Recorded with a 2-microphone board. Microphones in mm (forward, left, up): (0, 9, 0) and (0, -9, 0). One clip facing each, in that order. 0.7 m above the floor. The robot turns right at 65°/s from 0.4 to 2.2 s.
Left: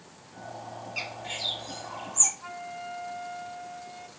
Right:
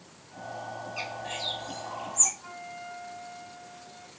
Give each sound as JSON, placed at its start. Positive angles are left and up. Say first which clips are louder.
{"t": 1.0, "sound": "a bird", "louder": "left 2 dB", "side_deg": 65, "distance_m": 4.5}
{"t": 2.4, "sound": "a flute", "louder": "left 3 dB", "side_deg": 35, "distance_m": 3.5}